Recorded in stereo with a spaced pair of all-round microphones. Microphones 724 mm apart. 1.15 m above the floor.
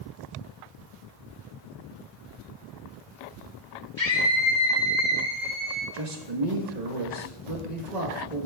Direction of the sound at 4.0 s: 35° left (ahead or behind).